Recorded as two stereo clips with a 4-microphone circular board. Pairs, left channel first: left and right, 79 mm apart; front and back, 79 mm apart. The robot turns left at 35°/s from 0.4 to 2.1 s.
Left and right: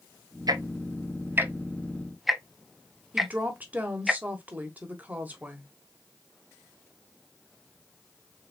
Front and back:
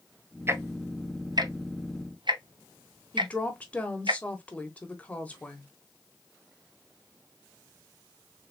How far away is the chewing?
I don't hear chewing.